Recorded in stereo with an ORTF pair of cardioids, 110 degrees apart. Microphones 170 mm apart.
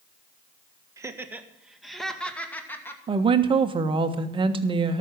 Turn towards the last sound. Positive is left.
turn(degrees=-30)